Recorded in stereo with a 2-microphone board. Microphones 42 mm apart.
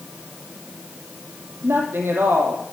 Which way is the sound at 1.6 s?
65° right (ahead or behind).